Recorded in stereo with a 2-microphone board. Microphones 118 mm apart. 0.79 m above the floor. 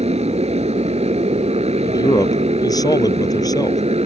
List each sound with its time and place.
0.0 s a motorcycle: 65° right (ahead or behind)
1.8 s a man speaking: 30° left (ahead or behind)